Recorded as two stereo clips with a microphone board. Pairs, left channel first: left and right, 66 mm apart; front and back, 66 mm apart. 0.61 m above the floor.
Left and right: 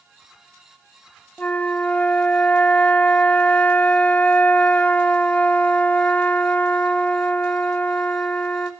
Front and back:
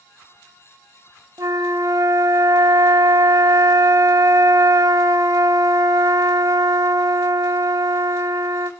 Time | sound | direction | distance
1.4 | a flute | 155° left | 1.4 m